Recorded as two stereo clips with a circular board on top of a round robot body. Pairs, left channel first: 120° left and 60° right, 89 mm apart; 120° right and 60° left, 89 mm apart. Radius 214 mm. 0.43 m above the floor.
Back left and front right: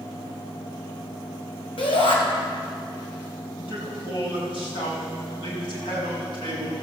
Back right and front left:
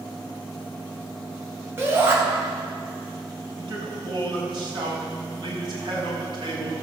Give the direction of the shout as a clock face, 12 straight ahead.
8 o'clock.